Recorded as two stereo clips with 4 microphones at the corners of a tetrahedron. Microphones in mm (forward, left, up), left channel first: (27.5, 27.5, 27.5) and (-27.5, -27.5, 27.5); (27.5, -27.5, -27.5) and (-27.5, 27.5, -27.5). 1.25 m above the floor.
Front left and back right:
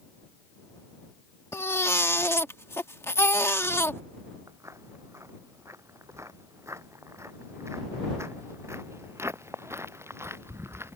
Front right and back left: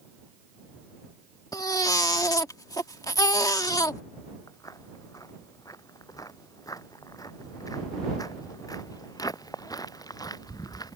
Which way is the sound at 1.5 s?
10° right.